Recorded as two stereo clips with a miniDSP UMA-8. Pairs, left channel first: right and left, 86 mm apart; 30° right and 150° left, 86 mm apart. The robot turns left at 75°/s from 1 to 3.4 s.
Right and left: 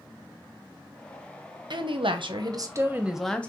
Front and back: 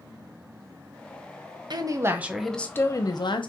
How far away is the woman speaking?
About 0.7 m.